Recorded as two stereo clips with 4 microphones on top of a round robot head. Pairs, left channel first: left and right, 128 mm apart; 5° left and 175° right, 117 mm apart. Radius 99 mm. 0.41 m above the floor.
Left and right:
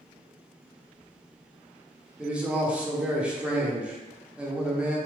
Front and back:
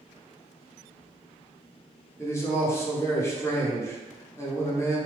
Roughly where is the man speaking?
Ahead.